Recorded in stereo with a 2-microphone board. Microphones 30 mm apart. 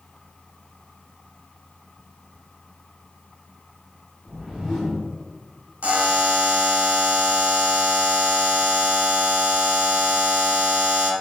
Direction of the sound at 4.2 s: 5° right (ahead or behind).